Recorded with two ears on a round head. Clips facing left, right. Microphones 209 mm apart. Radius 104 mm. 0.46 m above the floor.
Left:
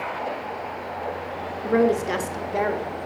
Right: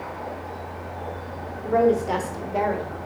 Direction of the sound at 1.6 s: 30° left (ahead or behind).